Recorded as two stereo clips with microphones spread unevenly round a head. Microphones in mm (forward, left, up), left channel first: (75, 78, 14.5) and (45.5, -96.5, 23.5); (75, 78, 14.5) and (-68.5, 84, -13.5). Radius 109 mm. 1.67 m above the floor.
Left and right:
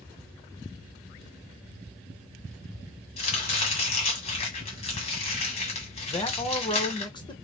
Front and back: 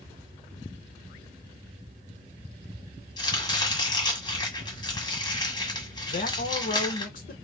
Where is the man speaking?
15° left, 1.1 m.